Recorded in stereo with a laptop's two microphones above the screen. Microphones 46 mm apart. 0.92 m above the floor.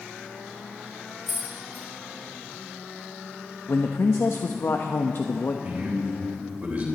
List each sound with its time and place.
1.3 s keys jangling: 55° left (ahead or behind), 3.5 m
3.7 s a man speaking: 65° left (ahead or behind), 0.8 m
5.6 s a man speaking: 30° right (ahead or behind), 3.5 m